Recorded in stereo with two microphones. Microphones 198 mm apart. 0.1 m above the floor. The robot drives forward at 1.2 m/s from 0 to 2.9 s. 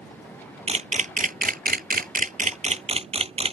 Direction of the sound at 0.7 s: 35° right (ahead or behind).